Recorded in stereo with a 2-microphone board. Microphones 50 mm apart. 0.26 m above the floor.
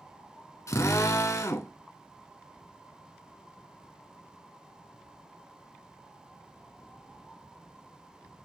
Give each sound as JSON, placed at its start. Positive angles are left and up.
{"t": 0.7, "sound": "a drill", "side_deg": 75, "distance_m": 1.0}